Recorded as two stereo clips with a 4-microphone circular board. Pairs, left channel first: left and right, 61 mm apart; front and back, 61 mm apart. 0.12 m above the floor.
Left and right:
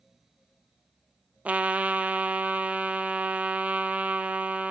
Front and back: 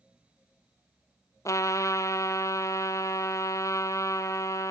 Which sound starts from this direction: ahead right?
A trumpet, at 1.4 s.